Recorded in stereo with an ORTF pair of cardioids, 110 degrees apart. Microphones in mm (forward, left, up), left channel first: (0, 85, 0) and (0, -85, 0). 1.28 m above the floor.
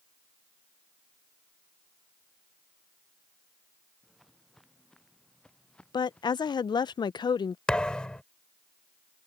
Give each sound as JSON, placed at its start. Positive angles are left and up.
{"t": 4.0, "sound": "footsteps", "azimuth_deg": 0}
{"t": 5.9, "sound": "a woman speaking", "azimuth_deg": 25}
{"t": 7.7, "sound": "a thud", "azimuth_deg": 5}